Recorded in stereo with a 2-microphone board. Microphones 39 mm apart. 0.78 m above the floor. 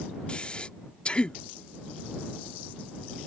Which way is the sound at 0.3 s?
30° left (ahead or behind).